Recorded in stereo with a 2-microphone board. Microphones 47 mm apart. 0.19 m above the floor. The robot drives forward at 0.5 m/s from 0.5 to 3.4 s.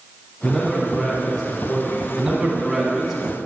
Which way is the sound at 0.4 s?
10° left (ahead or behind).